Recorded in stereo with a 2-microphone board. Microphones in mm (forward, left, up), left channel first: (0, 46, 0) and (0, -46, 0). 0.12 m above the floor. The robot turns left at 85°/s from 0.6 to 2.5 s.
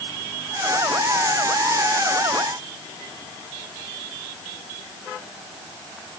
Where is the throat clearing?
No throat clearing in this recording.